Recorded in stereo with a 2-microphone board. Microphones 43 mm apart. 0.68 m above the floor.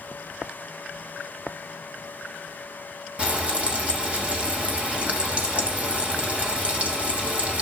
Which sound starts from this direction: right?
Frying, at 3.2 s.